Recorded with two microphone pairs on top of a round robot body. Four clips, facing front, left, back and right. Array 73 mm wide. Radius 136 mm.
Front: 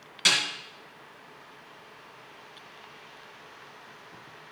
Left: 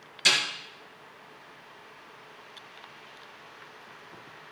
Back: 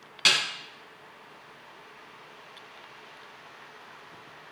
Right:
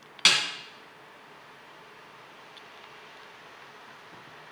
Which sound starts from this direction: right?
A snare drum, at 0.2 s.